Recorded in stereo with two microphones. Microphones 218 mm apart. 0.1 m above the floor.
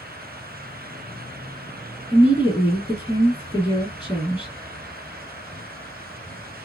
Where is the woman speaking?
15° left (ahead or behind), 1.7 m.